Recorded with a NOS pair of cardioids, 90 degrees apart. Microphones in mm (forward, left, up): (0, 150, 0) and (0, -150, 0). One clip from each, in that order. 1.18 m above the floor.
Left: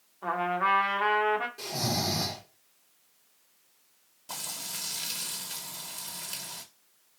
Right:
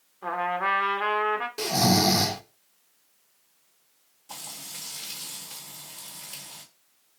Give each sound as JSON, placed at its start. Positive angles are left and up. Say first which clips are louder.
{"t": 0.2, "sound": "a trumpet", "louder": "right 1 dB", "azimuth_deg": -5, "distance_m": 0.6}
{"t": 1.6, "sound": "snoring", "louder": "right 8 dB", "azimuth_deg": -60, "distance_m": 0.6}
{"t": 4.3, "sound": "frying", "louder": "left 2 dB", "azimuth_deg": 40, "distance_m": 1.3}